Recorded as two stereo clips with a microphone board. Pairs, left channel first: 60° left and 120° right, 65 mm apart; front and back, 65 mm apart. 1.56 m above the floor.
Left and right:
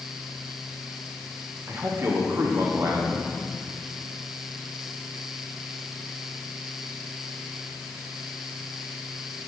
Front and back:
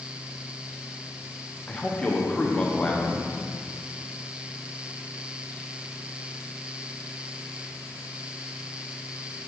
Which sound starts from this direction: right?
A man speaking, at 1.7 s.